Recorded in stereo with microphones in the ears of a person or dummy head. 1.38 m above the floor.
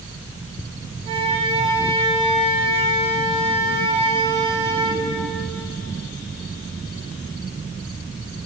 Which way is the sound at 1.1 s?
30° right (ahead or behind).